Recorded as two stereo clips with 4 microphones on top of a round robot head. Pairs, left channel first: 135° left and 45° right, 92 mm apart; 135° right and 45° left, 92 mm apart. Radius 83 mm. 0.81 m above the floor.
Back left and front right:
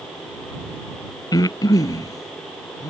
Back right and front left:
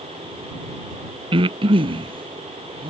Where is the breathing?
80° left.